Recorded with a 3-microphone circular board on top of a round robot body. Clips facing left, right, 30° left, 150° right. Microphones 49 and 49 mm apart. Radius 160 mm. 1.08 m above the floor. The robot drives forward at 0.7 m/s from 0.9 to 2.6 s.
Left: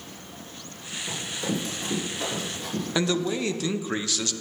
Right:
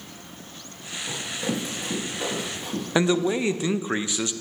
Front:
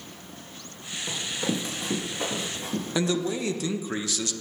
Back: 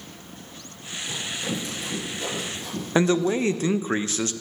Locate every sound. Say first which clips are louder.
1.1 s running footsteps: right 1 dB, front 1 dB; 15° right, 5 m
3.0 s a man speaking: right 4 dB, back 7 dB; 145° right, 0.8 m